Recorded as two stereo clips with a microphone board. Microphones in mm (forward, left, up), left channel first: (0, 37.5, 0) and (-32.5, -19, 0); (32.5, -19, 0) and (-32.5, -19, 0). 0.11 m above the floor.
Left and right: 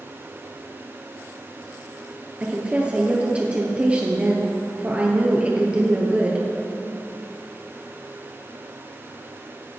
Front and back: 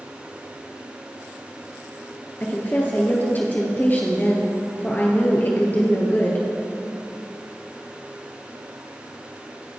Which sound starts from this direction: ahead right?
A woman speaking, at 2.4 s.